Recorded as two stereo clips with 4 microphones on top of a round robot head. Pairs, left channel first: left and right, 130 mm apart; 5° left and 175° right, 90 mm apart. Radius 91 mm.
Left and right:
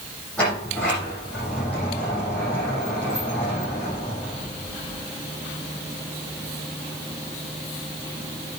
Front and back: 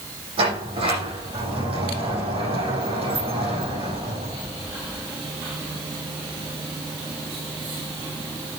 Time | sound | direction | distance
0.4 | a sliding door | 170° left | 9.5 m